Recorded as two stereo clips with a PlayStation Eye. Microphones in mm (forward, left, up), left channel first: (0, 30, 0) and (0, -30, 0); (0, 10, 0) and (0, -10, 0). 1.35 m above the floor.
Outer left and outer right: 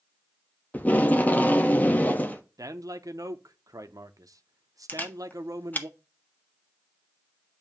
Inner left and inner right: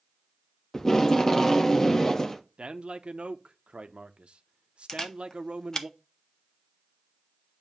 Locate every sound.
0.7 s tape being pulled: 25° left (ahead or behind), 0.6 m
2.6 s a man speaking: 70° right (ahead or behind), 0.5 m
4.9 s a camera shutter: 30° left (ahead or behind), 0.7 m